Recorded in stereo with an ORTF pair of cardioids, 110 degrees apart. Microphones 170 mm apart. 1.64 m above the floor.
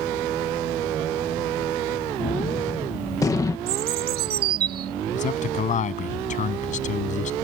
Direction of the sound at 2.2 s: 20° left.